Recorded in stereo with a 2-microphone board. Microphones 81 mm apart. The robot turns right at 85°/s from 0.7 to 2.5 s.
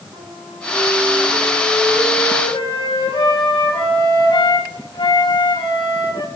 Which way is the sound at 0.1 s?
70° right.